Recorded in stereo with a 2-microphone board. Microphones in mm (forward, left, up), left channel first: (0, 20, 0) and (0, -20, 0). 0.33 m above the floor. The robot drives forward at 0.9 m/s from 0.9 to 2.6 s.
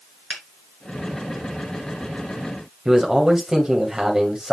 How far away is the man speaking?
About 1.7 m.